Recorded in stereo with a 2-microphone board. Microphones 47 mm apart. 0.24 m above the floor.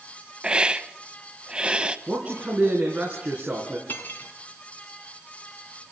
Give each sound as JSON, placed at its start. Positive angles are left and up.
{"t": 0.4, "sound": "a hiss", "side_deg": -20, "distance_m": 0.8}
{"t": 2.1, "sound": "a man speaking", "side_deg": -30, "distance_m": 3.5}
{"t": 3.9, "sound": "cutlery clinking", "side_deg": 45, "distance_m": 1.5}